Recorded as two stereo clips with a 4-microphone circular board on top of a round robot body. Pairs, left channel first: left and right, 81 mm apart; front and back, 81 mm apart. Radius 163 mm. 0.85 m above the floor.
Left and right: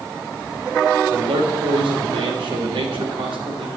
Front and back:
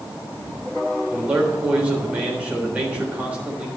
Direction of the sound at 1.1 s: 105° right.